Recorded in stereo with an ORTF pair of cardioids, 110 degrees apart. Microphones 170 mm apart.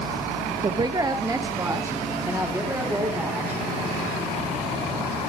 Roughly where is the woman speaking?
Ahead right.